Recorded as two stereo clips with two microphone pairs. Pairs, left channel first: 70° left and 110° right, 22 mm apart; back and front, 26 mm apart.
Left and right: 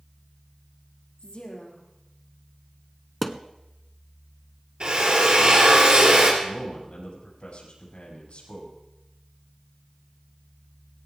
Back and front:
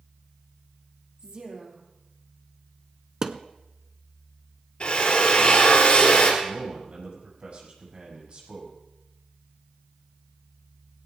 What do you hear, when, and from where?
1.2 s a woman speaking: 50° left, 4 m
3.2 s a thud: 25° right, 0.7 m
4.8 s a drill: 140° right, 3.5 m
6.4 s a man speaking: 45° left, 6 m